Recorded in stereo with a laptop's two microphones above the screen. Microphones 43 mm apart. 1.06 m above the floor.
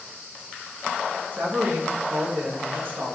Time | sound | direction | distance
1.3 | a woman speaking | 50° right (ahead or behind) | 1.0 m